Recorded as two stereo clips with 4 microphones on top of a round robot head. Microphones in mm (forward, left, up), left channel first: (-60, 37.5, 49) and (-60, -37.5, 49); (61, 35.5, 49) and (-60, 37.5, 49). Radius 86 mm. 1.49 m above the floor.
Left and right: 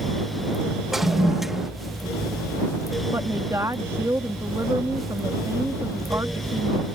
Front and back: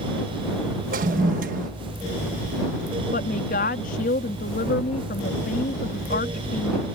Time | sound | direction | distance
0.9 | a toilet flushing | 175° right | ?
3.1 | a woman speaking | 20° right | ?